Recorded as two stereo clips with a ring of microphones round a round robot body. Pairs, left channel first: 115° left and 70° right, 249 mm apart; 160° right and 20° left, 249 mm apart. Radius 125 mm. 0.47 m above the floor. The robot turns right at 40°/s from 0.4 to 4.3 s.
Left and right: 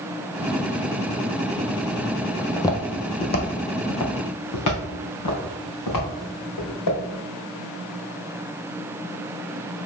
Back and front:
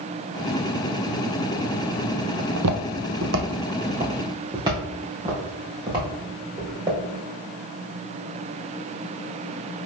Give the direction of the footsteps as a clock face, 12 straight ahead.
11 o'clock.